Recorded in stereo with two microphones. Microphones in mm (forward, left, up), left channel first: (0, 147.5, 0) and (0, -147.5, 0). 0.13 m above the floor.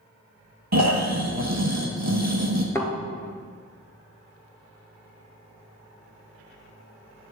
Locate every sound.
0.7 s snoring: 65° right (ahead or behind), 1.4 m
2.8 s a thud: 10° left (ahead or behind), 1.0 m